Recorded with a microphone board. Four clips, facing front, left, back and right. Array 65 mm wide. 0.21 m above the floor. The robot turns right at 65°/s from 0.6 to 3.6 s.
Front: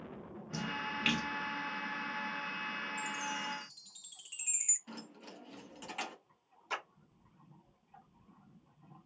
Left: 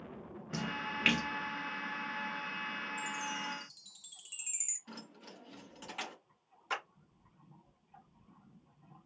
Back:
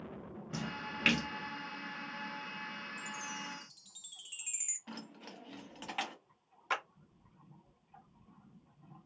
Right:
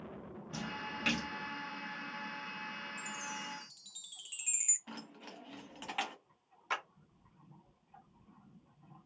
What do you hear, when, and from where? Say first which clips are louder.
0.5 s a splash: left 4 dB, front 3 dB; 100° left, 0.8 m; by 1.3 s 145° left, 0.8 m
3.0 s a chime: left 4 dB, front 4 dB; 130° right, 1.3 m; by 4.8 s 90° right, 1.3 m
4.9 s keys jangling: right 1 dB, back 2 dB; 125° right, 1.0 m
6.7 s a clap: right 1 dB, back 4 dB; 165° right, 1.5 m